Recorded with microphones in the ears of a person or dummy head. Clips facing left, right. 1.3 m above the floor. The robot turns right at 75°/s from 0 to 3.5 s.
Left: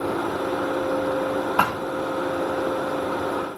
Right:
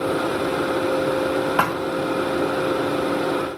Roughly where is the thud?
Right.